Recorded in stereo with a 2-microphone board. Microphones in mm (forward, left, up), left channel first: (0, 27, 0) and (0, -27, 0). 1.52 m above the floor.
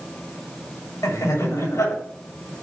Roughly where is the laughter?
Left.